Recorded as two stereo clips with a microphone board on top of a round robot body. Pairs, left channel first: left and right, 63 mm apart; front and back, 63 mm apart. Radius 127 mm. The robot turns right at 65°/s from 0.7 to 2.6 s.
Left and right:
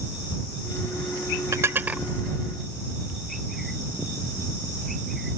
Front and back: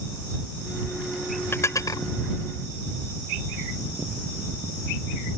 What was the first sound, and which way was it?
Dishes clattering, 50° right.